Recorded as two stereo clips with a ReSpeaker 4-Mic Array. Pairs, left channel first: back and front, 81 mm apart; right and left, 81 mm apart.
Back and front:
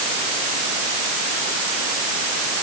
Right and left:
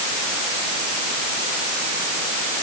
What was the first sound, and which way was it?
Only background noise.